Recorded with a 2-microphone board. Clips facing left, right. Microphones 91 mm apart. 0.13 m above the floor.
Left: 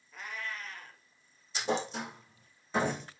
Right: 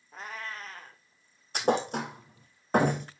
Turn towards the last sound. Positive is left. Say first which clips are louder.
# right 6 dB
turn(degrees=-60)  # may be behind; listen again after turning